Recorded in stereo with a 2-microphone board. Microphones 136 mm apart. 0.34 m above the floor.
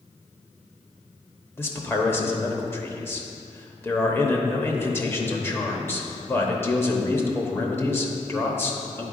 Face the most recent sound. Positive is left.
turn(degrees=15)  # may be behind; listen again after turning